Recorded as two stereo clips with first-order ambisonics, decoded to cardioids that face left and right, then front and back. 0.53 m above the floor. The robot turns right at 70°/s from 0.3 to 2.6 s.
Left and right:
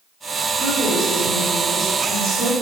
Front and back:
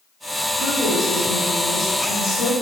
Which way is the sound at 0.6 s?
135° right.